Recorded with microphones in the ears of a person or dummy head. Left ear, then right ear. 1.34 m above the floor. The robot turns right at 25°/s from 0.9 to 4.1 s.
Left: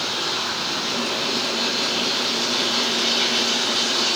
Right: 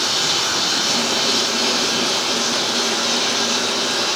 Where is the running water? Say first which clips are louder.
Right 5 dB; 25° right, 4 m; by 4.2 s 55° left, 4 m.